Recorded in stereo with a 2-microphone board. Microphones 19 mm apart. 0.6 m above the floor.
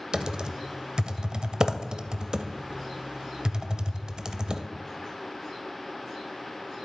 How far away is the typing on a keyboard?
About 0.5 m.